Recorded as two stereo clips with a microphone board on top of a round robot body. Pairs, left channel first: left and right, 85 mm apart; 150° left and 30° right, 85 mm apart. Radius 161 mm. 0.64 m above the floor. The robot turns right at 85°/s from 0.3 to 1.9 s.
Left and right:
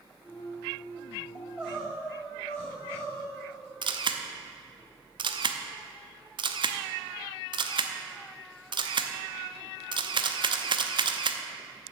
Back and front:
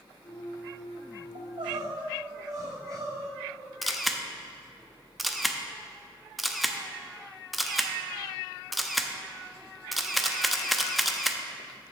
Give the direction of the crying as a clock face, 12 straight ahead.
1 o'clock.